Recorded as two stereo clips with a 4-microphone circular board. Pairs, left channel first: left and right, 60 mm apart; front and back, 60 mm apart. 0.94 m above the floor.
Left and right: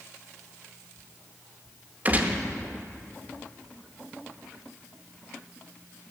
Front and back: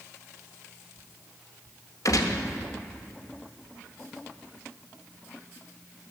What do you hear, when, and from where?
2.0 s a gunshot: 25° right, 0.7 m